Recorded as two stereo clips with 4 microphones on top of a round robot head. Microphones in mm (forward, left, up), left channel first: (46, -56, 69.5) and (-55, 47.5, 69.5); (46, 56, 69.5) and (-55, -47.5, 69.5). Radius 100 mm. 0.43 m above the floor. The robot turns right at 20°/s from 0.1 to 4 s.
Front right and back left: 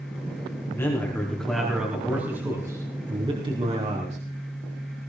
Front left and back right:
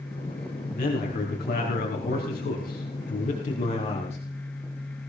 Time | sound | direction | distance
0.7 | a man speaking | 25° left | 4 m